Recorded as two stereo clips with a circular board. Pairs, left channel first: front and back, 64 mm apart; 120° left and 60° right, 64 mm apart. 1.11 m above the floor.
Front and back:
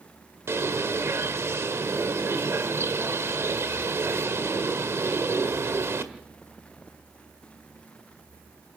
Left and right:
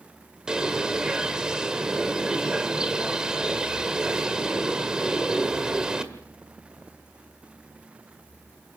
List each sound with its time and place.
0.5 s a bird: 140° right, 1.7 m